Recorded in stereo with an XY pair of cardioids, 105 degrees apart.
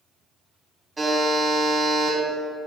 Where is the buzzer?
20° right, 0.8 m.